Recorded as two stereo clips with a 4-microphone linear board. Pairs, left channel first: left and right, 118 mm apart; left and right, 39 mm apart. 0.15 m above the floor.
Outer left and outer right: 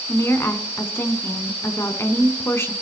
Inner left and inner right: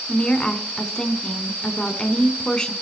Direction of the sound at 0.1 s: 20° left (ahead or behind).